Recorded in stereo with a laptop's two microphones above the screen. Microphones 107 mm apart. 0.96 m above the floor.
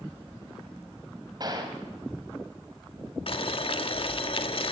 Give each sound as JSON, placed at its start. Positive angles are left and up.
{"t": 1.4, "sound": "a gunshot", "side_deg": -40, "distance_m": 2.5}
{"t": 3.3, "sound": "boiling", "side_deg": 55, "distance_m": 1.5}